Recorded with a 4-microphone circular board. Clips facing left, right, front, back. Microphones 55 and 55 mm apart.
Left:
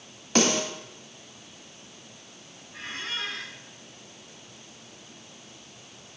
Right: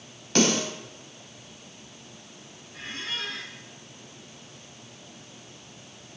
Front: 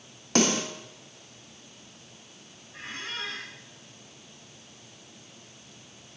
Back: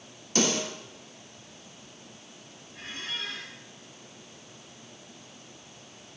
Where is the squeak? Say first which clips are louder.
Left 1 dB, front 1 dB; 25° left, 3 m.